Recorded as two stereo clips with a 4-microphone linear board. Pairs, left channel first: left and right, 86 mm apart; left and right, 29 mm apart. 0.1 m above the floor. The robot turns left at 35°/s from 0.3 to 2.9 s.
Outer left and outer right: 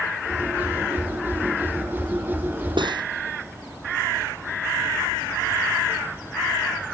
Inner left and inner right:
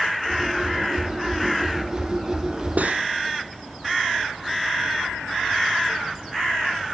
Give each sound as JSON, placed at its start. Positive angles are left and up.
{"t": 2.8, "sound": "cutlery clinking", "side_deg": -70}